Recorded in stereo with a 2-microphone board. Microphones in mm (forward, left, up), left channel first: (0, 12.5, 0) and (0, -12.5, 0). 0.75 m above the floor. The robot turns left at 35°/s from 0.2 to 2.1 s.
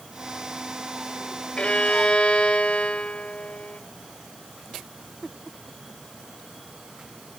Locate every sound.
1.6 s a violin: 50° left (ahead or behind), 0.5 m; by 3.8 s 55° left (ahead or behind), 0.5 m